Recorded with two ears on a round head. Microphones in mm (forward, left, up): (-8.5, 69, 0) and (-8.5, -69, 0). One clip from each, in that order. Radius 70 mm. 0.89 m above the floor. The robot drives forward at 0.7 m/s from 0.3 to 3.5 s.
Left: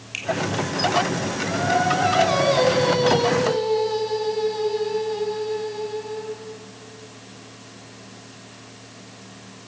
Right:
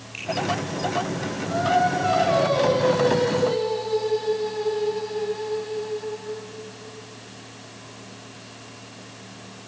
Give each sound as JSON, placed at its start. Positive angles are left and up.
{"t": 0.1, "sound": "a finger snap", "side_deg": 55, "distance_m": 6.5}
{"t": 1.5, "sound": "singing", "side_deg": 70, "distance_m": 6.5}